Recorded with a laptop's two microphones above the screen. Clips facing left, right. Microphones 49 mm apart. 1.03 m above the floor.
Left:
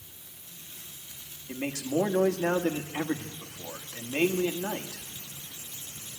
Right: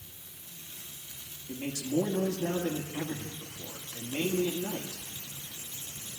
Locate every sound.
1.5 s a man speaking: 80° left, 1.5 m